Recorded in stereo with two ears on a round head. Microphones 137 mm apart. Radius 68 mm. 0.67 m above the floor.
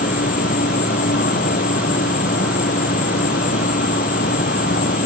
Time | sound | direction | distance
0.0 | an insect | 60° left (ahead or behind) | ?